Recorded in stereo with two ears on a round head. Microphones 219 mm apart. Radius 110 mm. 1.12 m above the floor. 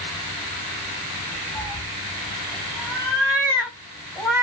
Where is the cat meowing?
5° right (ahead or behind), 1.0 m.